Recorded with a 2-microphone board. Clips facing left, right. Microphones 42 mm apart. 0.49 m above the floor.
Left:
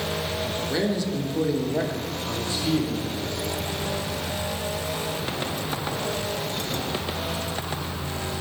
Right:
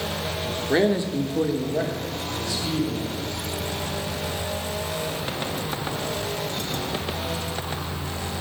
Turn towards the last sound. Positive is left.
turn(degrees=45)  # may be behind; listen again after turning